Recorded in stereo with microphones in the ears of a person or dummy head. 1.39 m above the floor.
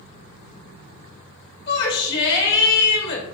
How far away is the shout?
About 1.2 m.